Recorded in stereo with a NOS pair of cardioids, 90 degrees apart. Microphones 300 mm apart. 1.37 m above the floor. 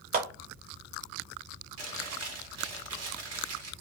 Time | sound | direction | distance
0.1 | a clap | 30° right | 1.0 m
1.8 | chewing | 60° right | 1.1 m